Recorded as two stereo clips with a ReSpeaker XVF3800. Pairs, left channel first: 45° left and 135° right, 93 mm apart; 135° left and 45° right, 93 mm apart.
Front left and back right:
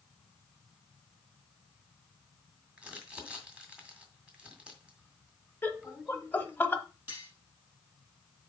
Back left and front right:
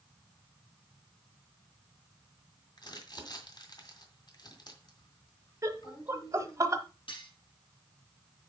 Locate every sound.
2.8 s crumpling: 150° left, 2 m
5.6 s laughter: 10° right, 1.2 m
7.1 s cutlery clinking: 160° left, 5.5 m